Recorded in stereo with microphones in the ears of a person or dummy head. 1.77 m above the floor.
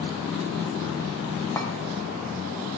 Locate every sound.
1.6 s a clink: 10° left (ahead or behind), 1.3 m